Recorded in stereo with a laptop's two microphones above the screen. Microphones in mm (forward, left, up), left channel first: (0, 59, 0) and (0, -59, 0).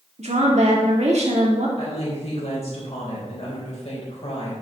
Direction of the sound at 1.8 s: 65° left (ahead or behind).